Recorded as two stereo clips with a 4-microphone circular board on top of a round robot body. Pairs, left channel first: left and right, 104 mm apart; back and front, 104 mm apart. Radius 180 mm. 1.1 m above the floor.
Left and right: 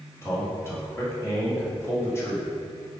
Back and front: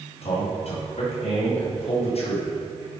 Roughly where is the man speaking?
Behind left.